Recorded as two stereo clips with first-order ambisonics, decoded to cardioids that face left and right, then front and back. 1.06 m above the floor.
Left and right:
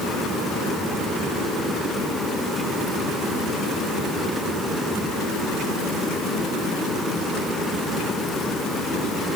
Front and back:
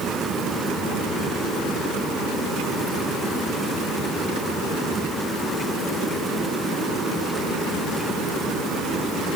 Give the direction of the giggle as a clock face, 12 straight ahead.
No giggle in this recording.